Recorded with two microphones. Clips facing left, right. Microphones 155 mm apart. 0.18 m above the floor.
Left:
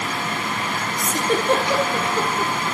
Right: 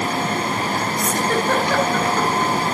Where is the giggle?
20° left (ahead or behind), 3.5 m.